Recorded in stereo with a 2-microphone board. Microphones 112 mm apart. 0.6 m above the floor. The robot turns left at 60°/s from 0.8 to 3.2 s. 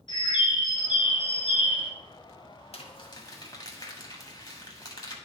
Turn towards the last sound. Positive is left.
turn(degrees=40)  # may be behind; listen again after turning